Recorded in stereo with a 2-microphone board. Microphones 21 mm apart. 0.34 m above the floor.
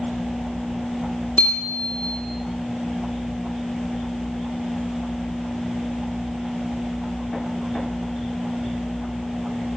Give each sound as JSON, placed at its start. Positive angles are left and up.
{"t": 1.4, "sound": "a bicycle bell", "side_deg": 75, "distance_m": 7.0}